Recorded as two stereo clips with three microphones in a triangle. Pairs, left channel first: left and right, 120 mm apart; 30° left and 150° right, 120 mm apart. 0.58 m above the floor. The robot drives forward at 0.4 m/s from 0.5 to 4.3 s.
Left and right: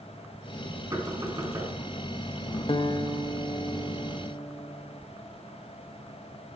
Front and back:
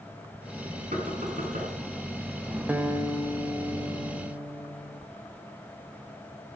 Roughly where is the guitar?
Behind left.